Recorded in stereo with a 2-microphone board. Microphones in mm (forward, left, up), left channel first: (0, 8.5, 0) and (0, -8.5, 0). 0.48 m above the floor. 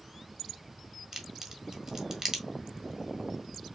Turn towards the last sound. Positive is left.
turn(degrees=-35)  # may be behind; listen again after turning